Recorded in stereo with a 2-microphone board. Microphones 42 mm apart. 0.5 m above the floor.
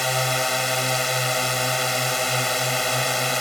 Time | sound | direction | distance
0.0 | a drone | centre (ahead or behind) | ?